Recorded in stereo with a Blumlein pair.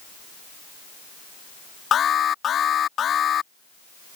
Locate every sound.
1.9 s an alarm: 25° left